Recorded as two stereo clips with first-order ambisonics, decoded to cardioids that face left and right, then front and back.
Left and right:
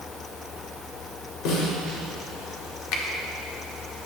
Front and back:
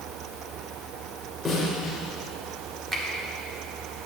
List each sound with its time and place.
1.4 s a snare drum: 80° left, 2.5 m
2.9 s a finger snap: 100° left, 1.3 m